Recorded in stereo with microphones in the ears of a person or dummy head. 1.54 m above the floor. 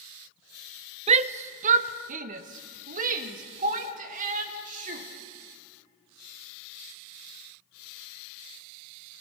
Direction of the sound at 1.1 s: 35° right (ahead or behind).